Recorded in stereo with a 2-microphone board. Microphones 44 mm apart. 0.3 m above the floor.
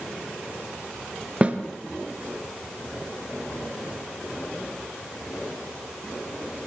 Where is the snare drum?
25° right (ahead or behind), 2 m.